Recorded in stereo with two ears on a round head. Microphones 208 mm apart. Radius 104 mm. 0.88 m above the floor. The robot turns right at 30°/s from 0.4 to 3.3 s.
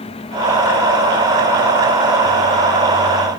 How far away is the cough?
I don't hear a cough.